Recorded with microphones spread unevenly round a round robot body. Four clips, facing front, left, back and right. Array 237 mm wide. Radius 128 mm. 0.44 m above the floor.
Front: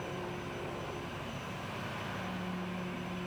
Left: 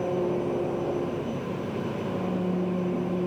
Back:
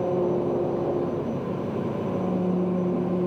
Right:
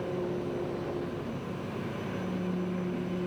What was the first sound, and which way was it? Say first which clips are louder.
An engine running: left 6 dB, back 17 dB; 160° left.